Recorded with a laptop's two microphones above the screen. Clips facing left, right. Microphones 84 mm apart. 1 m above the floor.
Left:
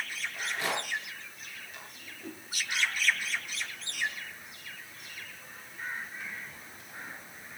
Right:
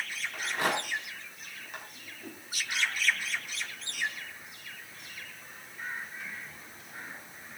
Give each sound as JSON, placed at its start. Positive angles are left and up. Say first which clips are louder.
{"t": 0.3, "sound": "a rattle", "louder": "right 3 dB", "side_deg": -60, "distance_m": 5.5}
{"t": 2.0, "sound": "a whoosh", "louder": "left 1 dB", "side_deg": -5, "distance_m": 4.0}